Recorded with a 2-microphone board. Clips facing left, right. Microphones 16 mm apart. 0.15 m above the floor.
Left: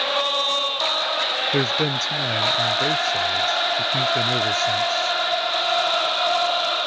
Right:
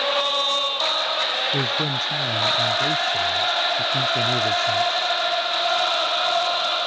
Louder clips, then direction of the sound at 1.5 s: Left 2 dB; 40° left (ahead or behind).